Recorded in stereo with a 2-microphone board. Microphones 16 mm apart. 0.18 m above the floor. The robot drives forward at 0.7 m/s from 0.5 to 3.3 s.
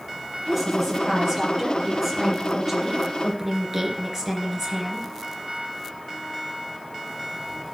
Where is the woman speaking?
10° right (ahead or behind), 5 m; by 5.1 s 15° right (ahead or behind), 3 m.